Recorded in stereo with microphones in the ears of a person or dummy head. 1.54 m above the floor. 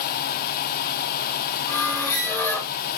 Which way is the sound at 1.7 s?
10° left (ahead or behind).